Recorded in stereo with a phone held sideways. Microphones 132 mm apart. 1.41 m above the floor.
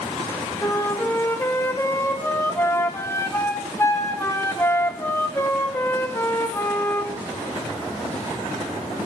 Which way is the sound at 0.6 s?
20° left (ahead or behind).